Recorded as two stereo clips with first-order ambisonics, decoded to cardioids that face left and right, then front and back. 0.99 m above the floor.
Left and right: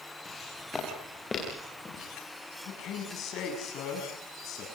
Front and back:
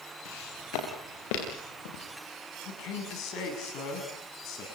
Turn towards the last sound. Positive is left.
turn(degrees=40)